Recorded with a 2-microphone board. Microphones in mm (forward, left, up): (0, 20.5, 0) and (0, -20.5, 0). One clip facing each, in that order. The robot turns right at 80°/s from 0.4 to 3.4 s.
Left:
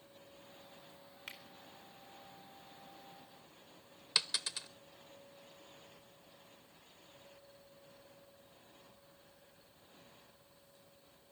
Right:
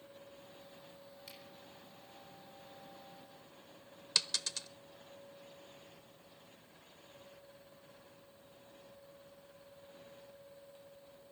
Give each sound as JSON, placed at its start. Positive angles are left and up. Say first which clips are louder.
{"t": 1.3, "sound": "a finger snap", "louder": "left 7 dB", "side_deg": 55, "distance_m": 2.0}
{"t": 4.2, "sound": "a dropped coin", "louder": "even", "side_deg": 10, "distance_m": 0.5}